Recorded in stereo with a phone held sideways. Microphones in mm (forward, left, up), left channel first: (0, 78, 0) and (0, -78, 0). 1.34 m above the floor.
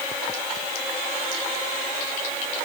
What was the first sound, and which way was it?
Only background noise.